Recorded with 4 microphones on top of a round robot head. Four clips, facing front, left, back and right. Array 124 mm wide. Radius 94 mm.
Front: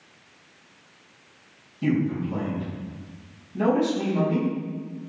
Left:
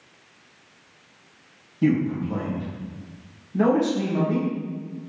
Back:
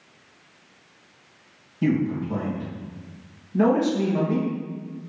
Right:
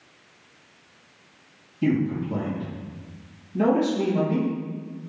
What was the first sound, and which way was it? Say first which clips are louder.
A man speaking: left 2 dB, back 1 dB; 140° left.